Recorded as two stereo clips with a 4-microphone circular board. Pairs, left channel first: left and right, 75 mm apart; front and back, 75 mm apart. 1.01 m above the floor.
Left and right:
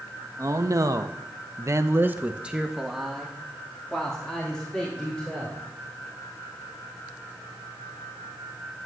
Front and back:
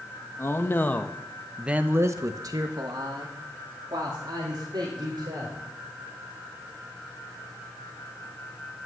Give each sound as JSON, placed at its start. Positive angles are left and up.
{"t": 0.4, "sound": "a man speaking", "azimuth_deg": -45, "distance_m": 1.5}